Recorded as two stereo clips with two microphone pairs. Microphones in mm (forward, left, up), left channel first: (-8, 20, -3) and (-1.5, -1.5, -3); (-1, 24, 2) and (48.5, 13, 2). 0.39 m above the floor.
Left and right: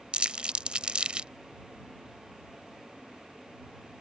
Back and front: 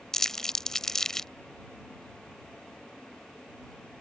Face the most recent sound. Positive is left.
turn(degrees=-110)